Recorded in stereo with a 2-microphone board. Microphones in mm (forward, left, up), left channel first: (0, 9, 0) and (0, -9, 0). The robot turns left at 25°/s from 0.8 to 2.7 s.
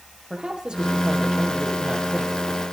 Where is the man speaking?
110° right, 4 m; by 2.4 s 150° right, 4 m.